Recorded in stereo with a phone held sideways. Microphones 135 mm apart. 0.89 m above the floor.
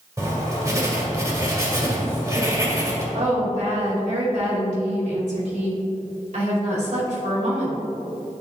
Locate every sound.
0.2 s writing: 25° right (ahead or behind), 1.7 m
3.1 s a woman speaking: 65° right (ahead or behind), 2 m